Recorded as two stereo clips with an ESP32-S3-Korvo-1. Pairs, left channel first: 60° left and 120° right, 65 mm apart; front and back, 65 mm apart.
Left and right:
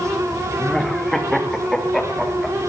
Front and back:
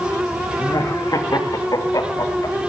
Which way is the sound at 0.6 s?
25° right.